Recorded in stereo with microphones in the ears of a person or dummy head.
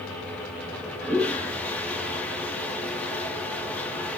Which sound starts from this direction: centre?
A toilet flushing, at 0.7 s.